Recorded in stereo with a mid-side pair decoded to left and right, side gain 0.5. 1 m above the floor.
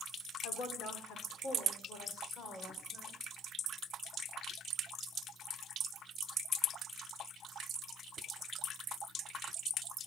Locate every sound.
0.4 s a woman speaking: 65° left, 3.5 m; by 3.2 s 40° left, 5 m